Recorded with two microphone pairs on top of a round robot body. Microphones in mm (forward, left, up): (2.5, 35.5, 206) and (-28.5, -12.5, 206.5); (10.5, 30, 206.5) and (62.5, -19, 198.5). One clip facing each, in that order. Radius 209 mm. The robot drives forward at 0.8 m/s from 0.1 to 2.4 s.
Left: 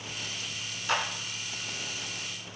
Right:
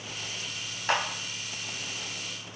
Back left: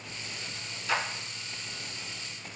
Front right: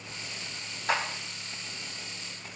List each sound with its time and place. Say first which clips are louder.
0.9 s a clap: right 2 dB, front right 2 dB; 80° right, 4 m; by 1.0 s 85° right, 4 m